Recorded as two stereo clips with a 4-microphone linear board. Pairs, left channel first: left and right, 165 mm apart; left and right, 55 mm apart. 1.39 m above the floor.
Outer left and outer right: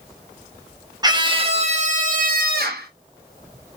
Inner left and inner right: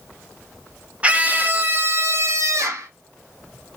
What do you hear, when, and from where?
1.0 s a scream: 25° right (ahead or behind), 1.2 m; by 2.9 s 70° right (ahead or behind), 1.4 m